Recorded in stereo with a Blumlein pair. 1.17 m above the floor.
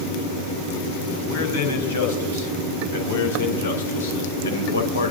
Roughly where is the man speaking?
Ahead left.